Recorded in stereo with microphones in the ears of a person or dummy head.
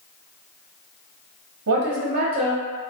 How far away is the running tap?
No running tap in this recording.